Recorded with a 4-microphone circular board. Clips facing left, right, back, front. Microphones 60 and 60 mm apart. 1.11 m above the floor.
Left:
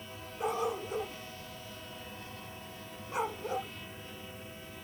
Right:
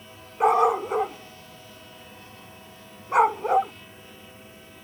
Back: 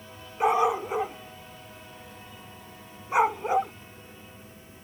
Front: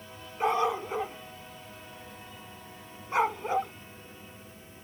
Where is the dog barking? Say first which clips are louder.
Right 14 dB, back 4 dB; 105° right.